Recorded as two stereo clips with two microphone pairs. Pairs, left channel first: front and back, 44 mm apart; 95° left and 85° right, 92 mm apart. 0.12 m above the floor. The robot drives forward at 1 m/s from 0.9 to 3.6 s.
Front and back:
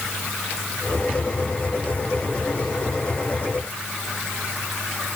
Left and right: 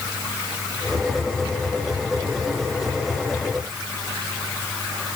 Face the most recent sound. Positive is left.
No sound to turn to.